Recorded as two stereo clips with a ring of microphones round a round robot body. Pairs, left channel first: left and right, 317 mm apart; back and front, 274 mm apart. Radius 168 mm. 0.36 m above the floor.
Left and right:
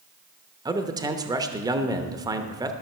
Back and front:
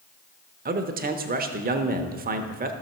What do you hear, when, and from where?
0.7 s a man speaking: 20° right, 0.9 m